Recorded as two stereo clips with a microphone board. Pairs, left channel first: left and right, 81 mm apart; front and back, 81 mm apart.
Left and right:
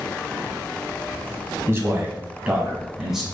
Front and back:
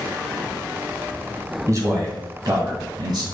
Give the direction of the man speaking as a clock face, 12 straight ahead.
5 o'clock.